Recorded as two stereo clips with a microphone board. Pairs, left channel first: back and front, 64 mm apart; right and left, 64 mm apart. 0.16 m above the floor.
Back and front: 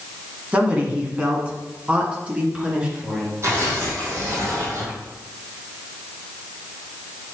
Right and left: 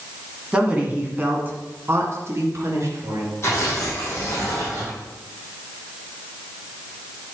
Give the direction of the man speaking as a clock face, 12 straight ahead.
11 o'clock.